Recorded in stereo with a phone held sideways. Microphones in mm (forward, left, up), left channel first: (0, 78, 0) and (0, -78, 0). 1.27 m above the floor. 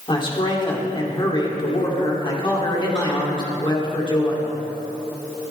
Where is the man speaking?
30° left (ahead or behind), 3 m.